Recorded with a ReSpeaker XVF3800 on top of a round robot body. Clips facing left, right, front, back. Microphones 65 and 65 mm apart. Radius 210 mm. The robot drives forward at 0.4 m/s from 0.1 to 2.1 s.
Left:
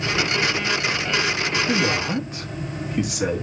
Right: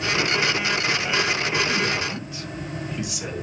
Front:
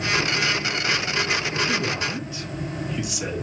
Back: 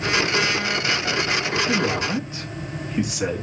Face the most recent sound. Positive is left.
turn(degrees=130)